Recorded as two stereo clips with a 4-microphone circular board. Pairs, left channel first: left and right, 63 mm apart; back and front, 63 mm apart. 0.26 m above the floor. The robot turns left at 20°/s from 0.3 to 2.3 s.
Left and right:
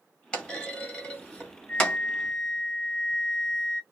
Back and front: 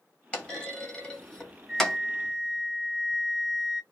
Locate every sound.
0.3 s a clunk: 140° left, 1.1 m; by 2.0 s 110° left, 1.1 m
1.7 s a flute: 70° left, 1.7 m; by 3.8 s 60° left, 1.7 m